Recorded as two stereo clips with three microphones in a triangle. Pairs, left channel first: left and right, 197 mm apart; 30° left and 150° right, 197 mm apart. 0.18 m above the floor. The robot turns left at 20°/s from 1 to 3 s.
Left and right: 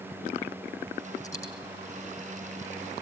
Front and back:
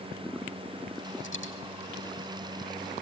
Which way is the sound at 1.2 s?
20° left.